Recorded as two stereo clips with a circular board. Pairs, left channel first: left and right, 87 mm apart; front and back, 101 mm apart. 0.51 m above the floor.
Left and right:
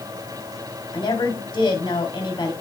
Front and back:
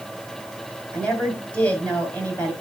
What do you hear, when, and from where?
0.9 s a woman speaking: 75° left, 3.5 m